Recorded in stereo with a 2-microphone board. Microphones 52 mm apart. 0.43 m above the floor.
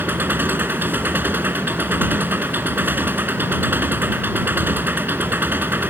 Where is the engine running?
40° right (ahead or behind).